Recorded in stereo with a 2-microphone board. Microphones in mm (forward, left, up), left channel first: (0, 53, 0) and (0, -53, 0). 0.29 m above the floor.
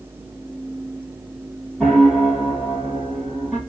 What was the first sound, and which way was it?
A piano, centre (ahead or behind).